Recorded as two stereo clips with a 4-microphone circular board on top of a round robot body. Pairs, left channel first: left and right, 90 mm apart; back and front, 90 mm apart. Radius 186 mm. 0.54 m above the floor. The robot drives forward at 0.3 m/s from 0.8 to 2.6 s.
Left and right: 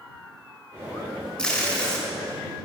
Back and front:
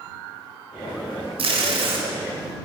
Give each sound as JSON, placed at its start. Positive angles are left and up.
{"t": 1.4, "sound": "tape being pulled", "azimuth_deg": 10, "distance_m": 1.5}